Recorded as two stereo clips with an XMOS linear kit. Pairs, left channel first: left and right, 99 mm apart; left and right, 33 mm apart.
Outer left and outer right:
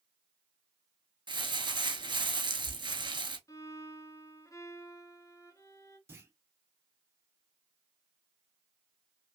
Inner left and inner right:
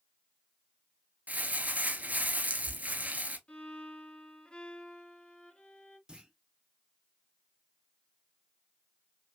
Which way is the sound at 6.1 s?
25° right (ahead or behind).